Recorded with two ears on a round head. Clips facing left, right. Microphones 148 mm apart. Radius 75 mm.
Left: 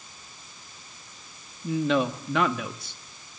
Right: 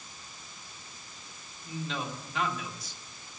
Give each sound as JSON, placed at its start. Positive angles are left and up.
{"t": 1.6, "sound": "a man speaking", "side_deg": 55, "distance_m": 1.6}